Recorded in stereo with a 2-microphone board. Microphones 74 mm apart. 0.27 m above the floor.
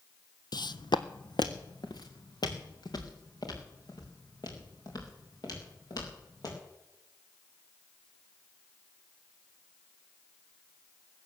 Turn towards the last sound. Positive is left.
turn(degrees=60)  # may be behind; listen again after turning